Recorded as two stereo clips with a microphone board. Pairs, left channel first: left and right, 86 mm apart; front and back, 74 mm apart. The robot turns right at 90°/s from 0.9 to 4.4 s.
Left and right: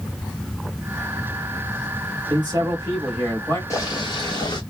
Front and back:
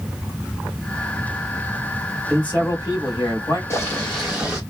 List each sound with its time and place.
2.3 s a man speaking: 85° right, 1.9 m; by 3.6 s 35° left, 1.9 m
3.7 s boiling: 45° left, 1.9 m; by 4.6 s 105° left, 1.9 m